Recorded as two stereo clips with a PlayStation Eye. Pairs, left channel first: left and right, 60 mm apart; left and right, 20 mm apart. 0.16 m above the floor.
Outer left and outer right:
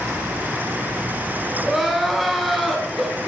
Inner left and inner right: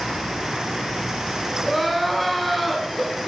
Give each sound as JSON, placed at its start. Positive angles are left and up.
{"t": 1.6, "sound": "crying", "side_deg": 0, "distance_m": 1.8}